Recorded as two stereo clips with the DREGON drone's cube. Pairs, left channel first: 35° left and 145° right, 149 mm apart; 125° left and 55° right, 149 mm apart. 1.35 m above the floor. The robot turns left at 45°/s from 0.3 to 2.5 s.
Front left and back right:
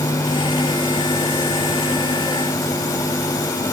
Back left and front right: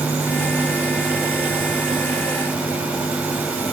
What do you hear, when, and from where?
Only background noise.